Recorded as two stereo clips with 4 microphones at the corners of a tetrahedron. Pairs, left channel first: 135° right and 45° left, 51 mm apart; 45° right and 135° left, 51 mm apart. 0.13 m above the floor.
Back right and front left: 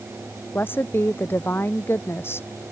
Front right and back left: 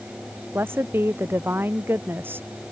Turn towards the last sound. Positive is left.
turn(degrees=-175)